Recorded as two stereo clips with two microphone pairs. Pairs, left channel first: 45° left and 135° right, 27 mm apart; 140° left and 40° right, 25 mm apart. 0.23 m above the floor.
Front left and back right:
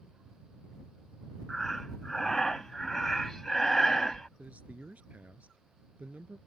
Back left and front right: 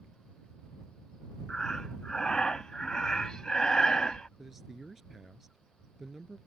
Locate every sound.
1.5 s breathing: 110° left
4.4 s a man speaking: 125° right